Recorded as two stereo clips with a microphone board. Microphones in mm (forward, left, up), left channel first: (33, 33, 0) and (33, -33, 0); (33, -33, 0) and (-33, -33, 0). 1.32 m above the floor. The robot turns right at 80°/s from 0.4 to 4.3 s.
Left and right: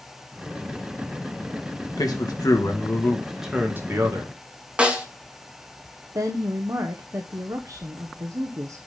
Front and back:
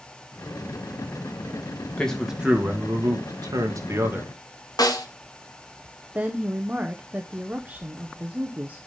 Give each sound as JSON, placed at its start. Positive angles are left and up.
{"t": 2.0, "sound": "a man speaking", "azimuth_deg": 70, "distance_m": 2.0}
{"t": 4.8, "sound": "a snare drum", "azimuth_deg": -15, "distance_m": 1.8}
{"t": 6.2, "sound": "a woman speaking", "azimuth_deg": -115, "distance_m": 0.8}